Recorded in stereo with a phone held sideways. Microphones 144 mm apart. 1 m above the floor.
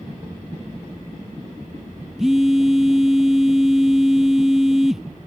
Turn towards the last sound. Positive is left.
turn(degrees=-5)  # may be behind; listen again after turning